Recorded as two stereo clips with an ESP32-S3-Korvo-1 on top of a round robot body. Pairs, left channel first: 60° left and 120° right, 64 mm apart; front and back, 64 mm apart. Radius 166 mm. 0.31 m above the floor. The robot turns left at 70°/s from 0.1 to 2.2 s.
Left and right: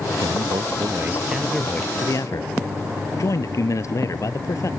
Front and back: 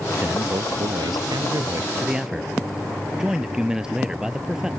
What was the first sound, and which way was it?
A man speaking, 115° right.